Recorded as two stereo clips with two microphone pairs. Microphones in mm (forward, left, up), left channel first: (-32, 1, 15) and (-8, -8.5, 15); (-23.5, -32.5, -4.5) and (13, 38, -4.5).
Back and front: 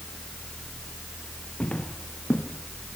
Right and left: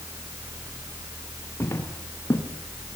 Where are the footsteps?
170° right, 4 m.